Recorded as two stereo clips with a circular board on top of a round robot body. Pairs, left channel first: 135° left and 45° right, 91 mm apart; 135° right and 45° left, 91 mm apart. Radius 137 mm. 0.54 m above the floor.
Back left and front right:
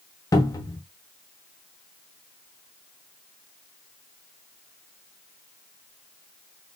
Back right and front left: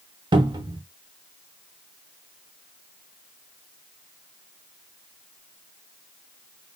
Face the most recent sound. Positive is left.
turn(degrees=80)